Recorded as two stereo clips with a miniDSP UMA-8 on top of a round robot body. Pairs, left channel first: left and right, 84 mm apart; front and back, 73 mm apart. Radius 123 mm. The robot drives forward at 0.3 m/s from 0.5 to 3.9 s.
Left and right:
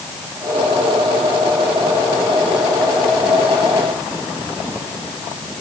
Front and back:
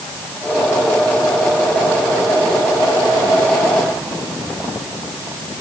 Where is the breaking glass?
I don't hear breaking glass.